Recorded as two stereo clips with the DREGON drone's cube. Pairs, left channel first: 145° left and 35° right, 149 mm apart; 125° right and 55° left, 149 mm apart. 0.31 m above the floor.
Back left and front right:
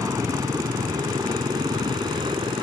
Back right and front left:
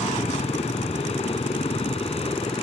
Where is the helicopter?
95° right; by 2.6 s 85° right.